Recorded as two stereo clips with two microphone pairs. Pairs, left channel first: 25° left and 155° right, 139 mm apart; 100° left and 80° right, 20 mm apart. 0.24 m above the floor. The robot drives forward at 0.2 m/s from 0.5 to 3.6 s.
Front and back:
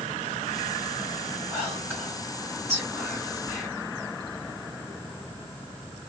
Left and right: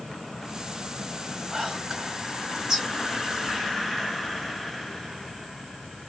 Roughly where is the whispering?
Right.